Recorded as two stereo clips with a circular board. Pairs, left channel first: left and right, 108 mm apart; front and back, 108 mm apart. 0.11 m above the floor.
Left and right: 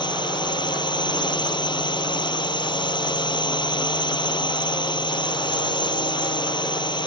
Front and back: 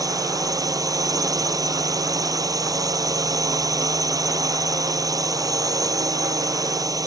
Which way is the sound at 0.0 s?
130° left.